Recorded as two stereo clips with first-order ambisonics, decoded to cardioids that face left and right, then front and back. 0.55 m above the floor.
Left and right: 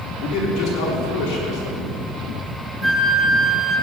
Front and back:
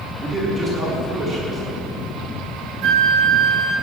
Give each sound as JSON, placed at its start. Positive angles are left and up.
{"t": 0.2, "sound": "a man speaking", "azimuth_deg": 115, "distance_m": 6.0}
{"t": 2.8, "sound": "a flute", "azimuth_deg": -170, "distance_m": 2.5}